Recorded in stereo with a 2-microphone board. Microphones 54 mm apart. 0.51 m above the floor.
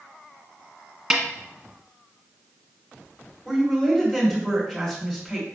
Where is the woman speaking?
5° left (ahead or behind), 1.9 m.